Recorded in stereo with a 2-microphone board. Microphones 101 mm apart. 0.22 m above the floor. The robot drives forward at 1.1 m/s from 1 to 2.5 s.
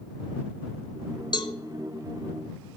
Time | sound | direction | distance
1.3 | a cowbell | 50° left (ahead or behind) | 0.7 m